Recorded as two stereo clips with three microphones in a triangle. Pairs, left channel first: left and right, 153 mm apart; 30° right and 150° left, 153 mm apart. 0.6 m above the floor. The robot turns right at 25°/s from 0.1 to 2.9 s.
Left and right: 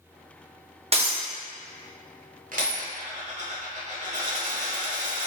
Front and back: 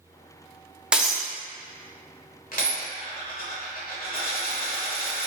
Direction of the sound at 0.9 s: 125° right.